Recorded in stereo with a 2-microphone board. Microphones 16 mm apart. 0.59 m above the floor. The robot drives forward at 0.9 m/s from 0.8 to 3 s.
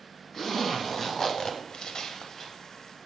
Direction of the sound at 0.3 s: 20° left (ahead or behind).